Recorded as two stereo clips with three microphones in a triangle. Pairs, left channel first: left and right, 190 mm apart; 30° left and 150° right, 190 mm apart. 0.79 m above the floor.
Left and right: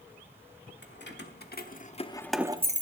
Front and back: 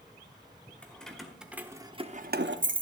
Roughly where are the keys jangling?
Behind left.